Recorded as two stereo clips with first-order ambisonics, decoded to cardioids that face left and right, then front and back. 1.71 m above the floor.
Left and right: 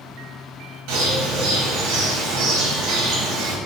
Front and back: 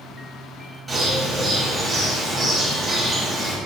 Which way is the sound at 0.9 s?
105° right.